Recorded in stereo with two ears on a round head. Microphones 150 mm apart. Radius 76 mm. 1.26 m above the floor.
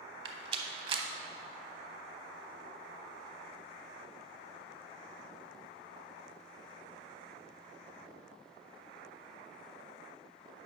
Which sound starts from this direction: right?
A rattle, at 0.2 s.